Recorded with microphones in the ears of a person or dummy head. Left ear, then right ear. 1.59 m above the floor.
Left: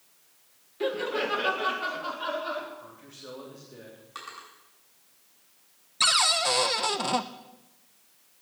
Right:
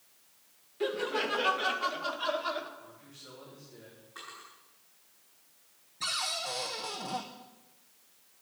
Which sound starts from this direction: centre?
Laughter, at 0.8 s.